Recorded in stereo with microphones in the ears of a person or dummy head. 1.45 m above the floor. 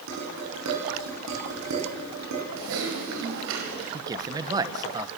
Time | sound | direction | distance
0.1 | dishes clattering | 70° right (ahead or behind) | 9.5 m
2.6 | typing on a keyboard | 80° right | 5 m
3.9 | a man speaking | 25° right (ahead or behind) | 1.2 m